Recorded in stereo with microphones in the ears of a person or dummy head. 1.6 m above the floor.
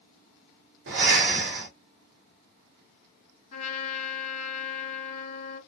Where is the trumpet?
45° left (ahead or behind), 2.0 m.